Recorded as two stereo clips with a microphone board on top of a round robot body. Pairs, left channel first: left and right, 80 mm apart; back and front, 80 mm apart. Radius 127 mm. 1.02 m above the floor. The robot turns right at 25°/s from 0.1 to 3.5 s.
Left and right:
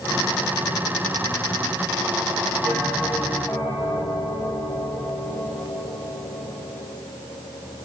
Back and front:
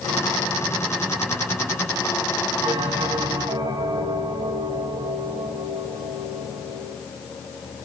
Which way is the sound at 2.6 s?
Straight ahead.